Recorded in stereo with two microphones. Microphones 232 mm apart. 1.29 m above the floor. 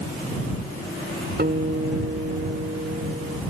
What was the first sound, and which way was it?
A guitar, 45° right (ahead or behind).